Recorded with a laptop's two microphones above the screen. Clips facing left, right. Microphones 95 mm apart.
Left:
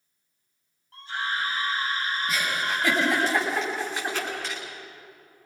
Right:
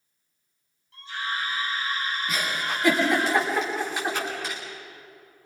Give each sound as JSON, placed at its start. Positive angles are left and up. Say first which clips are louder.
{"t": 0.9, "sound": "a scream", "louder": "left 1 dB", "side_deg": 55, "distance_m": 7.5}
{"t": 2.3, "sound": "a giggle", "louder": "left 1 dB", "side_deg": 0, "distance_m": 6.5}